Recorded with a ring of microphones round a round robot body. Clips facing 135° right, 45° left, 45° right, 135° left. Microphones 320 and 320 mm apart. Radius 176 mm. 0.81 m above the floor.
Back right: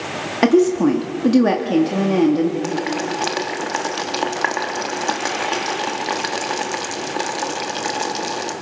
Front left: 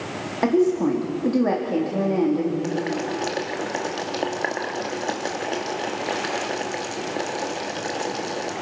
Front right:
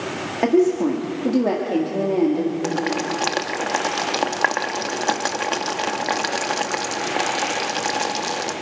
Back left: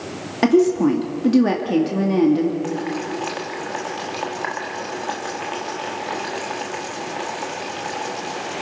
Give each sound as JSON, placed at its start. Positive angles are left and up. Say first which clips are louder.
{"t": 0.4, "sound": "a woman speaking", "louder": "back right 5 dB, back left 2 dB", "azimuth_deg": -170, "distance_m": 1.8}
{"t": 2.6, "sound": "boiling", "louder": "back right 2 dB, front right 1 dB", "azimuth_deg": -65, "distance_m": 1.6}